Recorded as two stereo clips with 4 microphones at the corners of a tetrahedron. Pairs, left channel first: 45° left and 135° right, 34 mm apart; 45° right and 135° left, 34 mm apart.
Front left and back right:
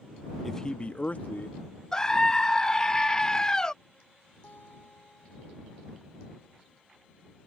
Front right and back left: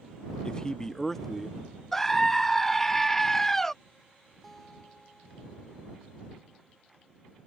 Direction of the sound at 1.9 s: 20° left.